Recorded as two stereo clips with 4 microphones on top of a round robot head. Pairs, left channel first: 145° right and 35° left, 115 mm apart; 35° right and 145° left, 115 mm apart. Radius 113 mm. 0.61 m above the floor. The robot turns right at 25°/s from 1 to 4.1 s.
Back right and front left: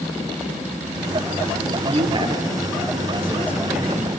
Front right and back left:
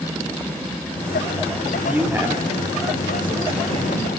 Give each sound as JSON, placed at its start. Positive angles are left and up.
{"t": 1.8, "sound": "a man speaking", "azimuth_deg": 70, "distance_m": 2.5}